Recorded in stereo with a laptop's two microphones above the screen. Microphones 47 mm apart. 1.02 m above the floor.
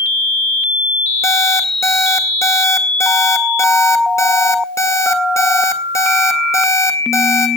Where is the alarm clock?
80° left, 1.8 m.